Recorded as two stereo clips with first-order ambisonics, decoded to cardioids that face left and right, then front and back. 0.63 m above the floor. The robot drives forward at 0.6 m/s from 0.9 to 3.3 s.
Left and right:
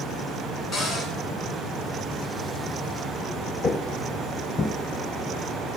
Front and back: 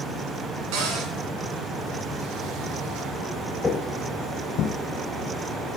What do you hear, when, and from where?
0.7 s a cupboard door: 165° left, 4 m
3.6 s footsteps: 70° left, 0.6 m; by 4.7 s 30° left, 0.9 m